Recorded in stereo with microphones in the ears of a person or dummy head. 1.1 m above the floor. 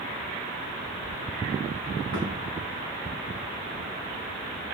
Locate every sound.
2.1 s a thud: 75° right (ahead or behind), 3.5 m